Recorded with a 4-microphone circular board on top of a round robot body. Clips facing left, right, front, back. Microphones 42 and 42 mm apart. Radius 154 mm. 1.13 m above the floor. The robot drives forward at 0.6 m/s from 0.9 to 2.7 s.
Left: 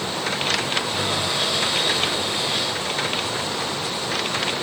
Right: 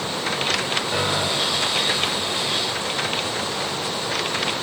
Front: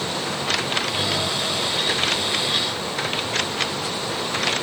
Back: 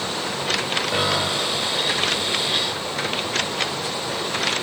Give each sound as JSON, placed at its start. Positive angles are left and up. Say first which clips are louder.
{"t": 0.9, "sound": "a piano", "louder": "right 1 dB, back 2 dB", "azimuth_deg": -150, "distance_m": 4.5}